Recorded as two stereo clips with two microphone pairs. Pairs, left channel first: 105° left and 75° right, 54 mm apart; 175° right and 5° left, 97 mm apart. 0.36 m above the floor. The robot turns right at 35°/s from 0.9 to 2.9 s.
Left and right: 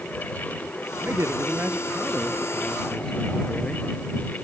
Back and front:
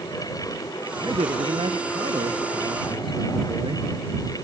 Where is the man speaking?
35° right; by 3.9 s 30° left.